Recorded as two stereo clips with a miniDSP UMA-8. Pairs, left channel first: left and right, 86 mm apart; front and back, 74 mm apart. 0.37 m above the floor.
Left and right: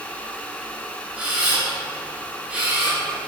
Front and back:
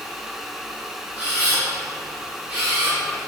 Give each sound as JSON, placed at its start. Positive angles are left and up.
{"t": 1.2, "sound": "a camera shutter", "azimuth_deg": -130, "distance_m": 1.4}